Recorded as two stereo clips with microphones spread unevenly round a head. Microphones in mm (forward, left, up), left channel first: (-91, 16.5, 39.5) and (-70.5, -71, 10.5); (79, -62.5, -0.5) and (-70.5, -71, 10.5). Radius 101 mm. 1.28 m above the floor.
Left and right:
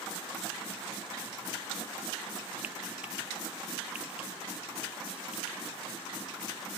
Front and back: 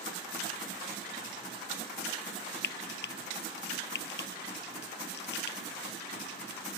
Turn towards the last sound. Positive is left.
turn(degrees=10)